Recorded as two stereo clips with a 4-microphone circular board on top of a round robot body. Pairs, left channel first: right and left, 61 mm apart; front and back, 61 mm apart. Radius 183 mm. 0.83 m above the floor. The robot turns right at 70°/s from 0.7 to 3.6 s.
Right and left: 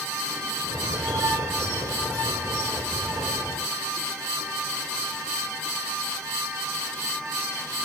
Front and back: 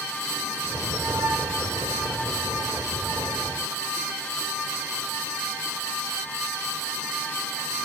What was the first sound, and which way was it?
Only background noise.